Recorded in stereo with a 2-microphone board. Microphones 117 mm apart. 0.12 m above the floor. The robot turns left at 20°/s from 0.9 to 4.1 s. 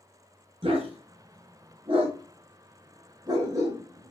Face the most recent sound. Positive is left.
turn(degrees=-25)  # may be behind; listen again after turning